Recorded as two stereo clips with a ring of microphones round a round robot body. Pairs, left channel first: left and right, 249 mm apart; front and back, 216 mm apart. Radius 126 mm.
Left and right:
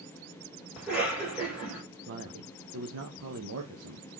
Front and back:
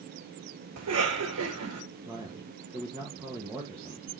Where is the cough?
175° right, 4 m.